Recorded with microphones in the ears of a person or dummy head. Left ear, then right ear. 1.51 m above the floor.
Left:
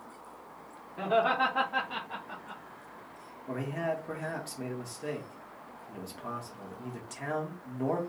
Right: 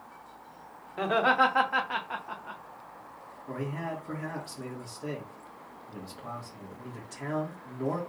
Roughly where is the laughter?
Right.